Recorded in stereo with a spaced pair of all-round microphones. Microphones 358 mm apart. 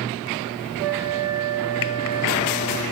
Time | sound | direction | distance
0.8 | a flute | 65° left (ahead or behind) | 6 m